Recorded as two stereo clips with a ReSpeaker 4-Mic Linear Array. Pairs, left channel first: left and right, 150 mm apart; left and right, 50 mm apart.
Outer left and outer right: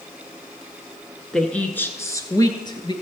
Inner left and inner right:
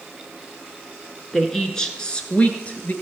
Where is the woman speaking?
5° left (ahead or behind), 1.1 m; by 2.9 s 35° left (ahead or behind), 1.5 m.